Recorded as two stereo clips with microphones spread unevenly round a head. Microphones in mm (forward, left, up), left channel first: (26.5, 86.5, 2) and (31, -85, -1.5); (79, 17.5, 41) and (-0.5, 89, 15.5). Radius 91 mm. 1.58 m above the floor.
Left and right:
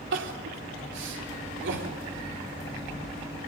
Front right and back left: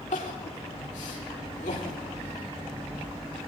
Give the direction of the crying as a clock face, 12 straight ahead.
3 o'clock.